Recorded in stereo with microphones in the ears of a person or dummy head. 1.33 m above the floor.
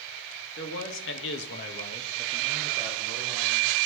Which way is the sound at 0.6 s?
60° left (ahead or behind).